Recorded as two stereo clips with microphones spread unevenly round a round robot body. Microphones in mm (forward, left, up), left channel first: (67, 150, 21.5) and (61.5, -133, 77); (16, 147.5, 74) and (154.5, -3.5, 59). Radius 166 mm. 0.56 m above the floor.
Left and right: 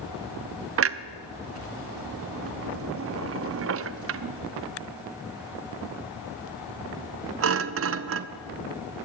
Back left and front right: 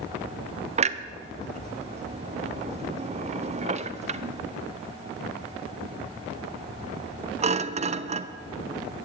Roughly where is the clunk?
Ahead right.